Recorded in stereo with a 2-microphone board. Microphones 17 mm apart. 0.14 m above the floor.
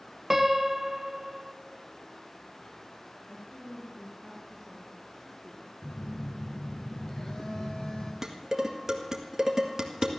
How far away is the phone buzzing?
About 2 m.